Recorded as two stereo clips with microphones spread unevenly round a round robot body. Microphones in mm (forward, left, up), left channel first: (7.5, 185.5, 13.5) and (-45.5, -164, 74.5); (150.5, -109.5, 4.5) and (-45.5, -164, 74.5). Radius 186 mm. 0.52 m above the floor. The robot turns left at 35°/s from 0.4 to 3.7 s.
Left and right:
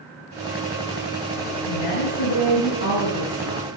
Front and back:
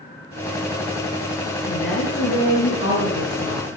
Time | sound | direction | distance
1.7 | a woman speaking | 60° left | 7.5 m